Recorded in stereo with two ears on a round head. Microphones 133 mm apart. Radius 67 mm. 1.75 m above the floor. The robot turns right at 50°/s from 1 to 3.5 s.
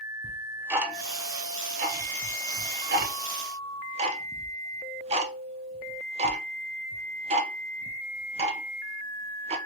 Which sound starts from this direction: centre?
Ticking, at 0.2 s.